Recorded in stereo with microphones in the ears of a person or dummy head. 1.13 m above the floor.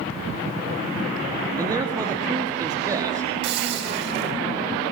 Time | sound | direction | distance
1.6 | a man speaking | 10° right (ahead or behind) | 1.9 m
3.4 | a hiss | 70° right (ahead or behind) | 4 m